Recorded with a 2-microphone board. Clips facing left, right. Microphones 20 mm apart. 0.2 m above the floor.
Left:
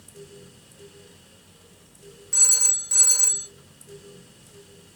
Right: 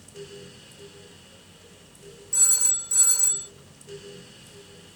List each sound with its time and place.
2.3 s a phone ringing: 25° left (ahead or behind), 0.7 m